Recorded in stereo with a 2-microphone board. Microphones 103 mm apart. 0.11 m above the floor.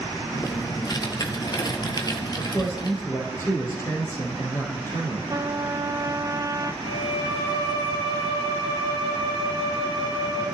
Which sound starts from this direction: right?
A trumpet, at 5.3 s.